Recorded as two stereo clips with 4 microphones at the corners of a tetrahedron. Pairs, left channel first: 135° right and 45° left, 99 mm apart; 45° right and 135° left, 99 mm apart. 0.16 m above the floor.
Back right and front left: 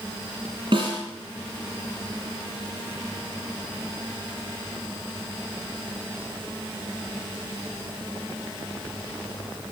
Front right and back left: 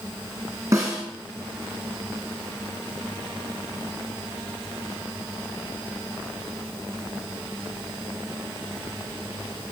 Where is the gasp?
No gasp in this recording.